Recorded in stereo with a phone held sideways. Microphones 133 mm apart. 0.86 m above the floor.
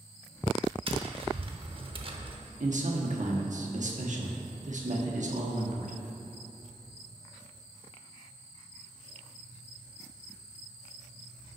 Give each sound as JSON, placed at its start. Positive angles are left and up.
{"t": 0.9, "sound": "tapping", "side_deg": -40, "distance_m": 0.7}
{"t": 2.6, "sound": "a man speaking", "side_deg": -65, "distance_m": 1.2}